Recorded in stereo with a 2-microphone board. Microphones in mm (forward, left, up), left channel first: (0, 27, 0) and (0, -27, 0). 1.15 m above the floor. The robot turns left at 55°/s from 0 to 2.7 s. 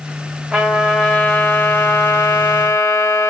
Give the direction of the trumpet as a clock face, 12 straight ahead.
5 o'clock.